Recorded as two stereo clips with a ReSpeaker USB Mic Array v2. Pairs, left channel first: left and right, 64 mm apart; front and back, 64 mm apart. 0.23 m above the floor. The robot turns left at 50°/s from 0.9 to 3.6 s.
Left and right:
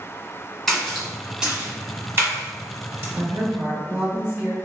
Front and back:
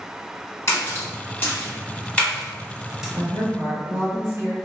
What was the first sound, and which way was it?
A splash, 5° left.